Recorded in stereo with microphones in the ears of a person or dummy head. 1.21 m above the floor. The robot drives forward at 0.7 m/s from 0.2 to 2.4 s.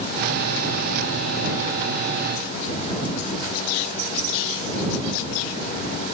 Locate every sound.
Only background noise.